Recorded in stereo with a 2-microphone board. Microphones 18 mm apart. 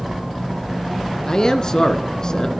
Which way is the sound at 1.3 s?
45° left (ahead or behind).